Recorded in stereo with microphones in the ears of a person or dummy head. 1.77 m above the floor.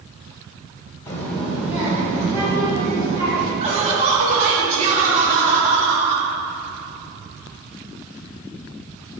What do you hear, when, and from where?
1.1 s a child speaking: 15° left (ahead or behind), 1.3 m; by 3.5 s 30° right (ahead or behind), 4.5 m
3.6 s laughter: 35° right (ahead or behind), 2 m